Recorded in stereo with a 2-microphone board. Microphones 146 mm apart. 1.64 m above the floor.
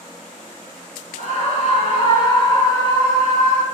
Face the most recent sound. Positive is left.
turn(degrees=10)  # may be behind; listen again after turning